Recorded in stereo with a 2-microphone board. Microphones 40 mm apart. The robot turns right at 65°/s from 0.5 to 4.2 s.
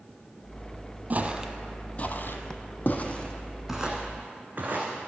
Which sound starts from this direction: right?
Footsteps, at 1.1 s.